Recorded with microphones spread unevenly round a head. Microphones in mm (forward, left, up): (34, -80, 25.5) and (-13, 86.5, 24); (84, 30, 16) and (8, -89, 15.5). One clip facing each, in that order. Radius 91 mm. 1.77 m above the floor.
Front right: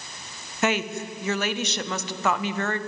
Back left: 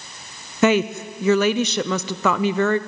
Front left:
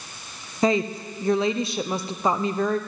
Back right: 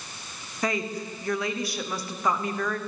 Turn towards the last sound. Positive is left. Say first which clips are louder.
# back left 8 dB, front left 7 dB
turn(degrees=130)